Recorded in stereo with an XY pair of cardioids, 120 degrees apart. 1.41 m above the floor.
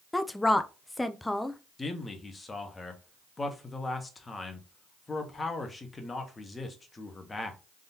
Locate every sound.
0.1 s a woman speaking: 10° left, 0.6 m
1.8 s a man speaking: 20° left, 1.3 m